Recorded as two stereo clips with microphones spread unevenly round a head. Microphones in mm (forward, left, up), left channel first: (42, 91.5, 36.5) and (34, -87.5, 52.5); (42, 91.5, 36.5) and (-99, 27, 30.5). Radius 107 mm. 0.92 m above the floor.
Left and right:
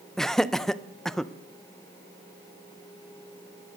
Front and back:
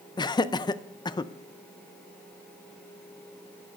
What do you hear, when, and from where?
0.2 s laughter: 15° left, 0.6 m